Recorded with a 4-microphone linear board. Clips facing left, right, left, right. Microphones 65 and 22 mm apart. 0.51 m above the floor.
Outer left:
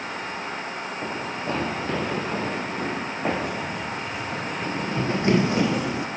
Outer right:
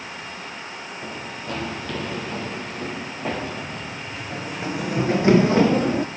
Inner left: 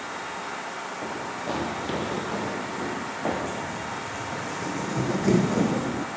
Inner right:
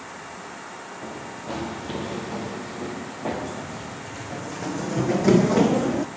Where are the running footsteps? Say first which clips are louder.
Outer left 4 dB, inner left 3 dB; 35° left (ahead or behind), 4.5 m; by 6.1 s 45° right (ahead or behind), 2 m.